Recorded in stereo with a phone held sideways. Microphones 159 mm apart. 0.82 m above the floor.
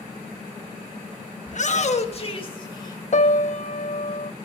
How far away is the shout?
About 1.1 m.